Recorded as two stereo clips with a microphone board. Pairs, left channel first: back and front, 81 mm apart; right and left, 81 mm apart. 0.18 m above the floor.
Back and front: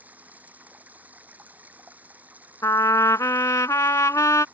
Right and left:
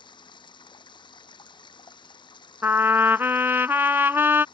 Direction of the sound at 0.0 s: 70° right.